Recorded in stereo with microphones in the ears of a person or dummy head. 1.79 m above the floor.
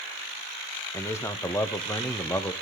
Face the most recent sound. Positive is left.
turn(degrees=10)  # may be behind; listen again after turning